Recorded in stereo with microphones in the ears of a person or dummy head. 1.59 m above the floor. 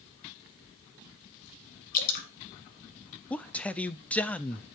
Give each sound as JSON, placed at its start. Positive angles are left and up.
{"t": 1.9, "sound": "dripping", "side_deg": 45, "distance_m": 2.0}
{"t": 3.3, "sound": "a man speaking", "side_deg": 5, "distance_m": 0.6}